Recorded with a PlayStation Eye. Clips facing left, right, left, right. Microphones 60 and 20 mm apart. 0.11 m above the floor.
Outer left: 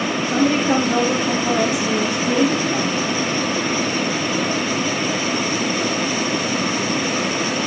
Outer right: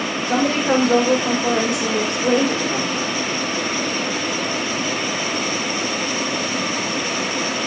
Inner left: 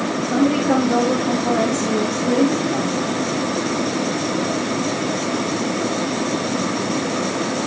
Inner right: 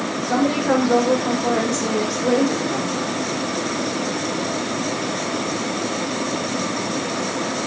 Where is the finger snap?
I don't hear a finger snap.